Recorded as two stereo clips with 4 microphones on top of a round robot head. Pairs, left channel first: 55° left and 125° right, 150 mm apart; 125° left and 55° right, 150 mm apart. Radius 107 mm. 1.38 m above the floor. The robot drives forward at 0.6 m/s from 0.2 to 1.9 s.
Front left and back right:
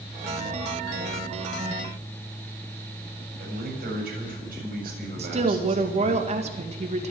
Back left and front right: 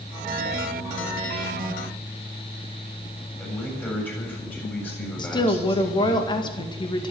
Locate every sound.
3.4 s a man speaking: 155° right, 7 m
5.2 s a woman speaking: 175° right, 2 m